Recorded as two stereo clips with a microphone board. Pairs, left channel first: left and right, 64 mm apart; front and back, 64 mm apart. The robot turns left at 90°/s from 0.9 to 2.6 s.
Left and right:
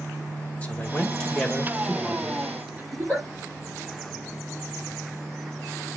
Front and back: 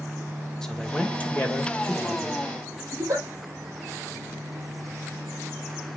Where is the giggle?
135° right, 6.5 m.